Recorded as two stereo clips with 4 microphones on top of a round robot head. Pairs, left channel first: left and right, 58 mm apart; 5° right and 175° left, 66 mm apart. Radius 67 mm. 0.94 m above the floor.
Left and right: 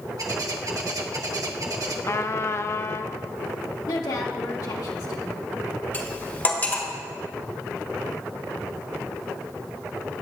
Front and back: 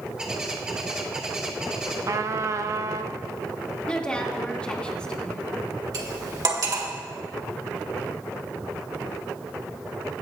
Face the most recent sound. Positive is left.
turn(degrees=150)